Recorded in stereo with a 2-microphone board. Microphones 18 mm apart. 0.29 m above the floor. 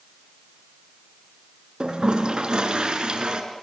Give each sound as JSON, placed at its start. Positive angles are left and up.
{"t": 1.8, "sound": "a toilet flushing", "side_deg": -55, "distance_m": 3.0}